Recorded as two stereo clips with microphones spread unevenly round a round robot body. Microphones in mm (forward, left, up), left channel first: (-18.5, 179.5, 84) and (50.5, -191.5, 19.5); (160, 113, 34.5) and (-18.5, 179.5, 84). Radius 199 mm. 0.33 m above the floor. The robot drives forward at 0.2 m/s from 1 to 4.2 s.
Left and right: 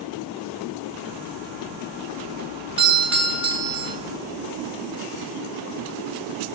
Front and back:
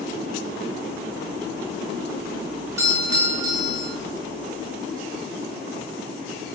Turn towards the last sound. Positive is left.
turn(degrees=-130)